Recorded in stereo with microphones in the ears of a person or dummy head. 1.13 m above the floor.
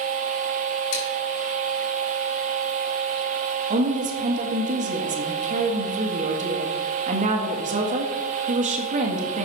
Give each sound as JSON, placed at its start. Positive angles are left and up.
{"t": 0.9, "sound": "dishes clattering", "side_deg": 65, "distance_m": 4.0}
{"t": 3.7, "sound": "a woman speaking", "side_deg": -35, "distance_m": 1.5}